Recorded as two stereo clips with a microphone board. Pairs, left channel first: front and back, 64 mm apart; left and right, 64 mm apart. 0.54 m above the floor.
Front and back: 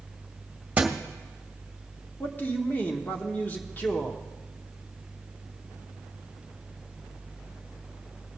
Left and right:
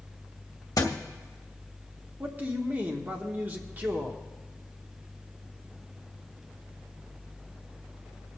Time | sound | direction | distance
0.8 | a thud | 110° left | 0.9 m
2.2 | a man speaking | 45° right | 1.1 m